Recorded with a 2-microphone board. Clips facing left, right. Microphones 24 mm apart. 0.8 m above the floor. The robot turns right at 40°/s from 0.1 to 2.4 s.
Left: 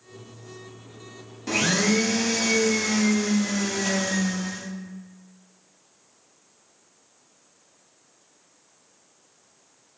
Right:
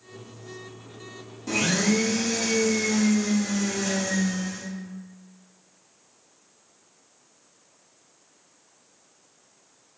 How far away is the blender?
About 0.5 m.